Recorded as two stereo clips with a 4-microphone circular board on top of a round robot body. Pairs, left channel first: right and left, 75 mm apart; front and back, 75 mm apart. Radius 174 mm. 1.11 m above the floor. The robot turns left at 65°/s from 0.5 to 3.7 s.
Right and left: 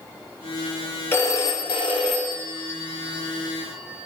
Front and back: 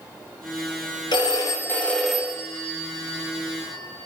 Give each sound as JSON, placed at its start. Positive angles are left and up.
{"t": 1.1, "sound": "a phone ringing", "azimuth_deg": -25, "distance_m": 2.5}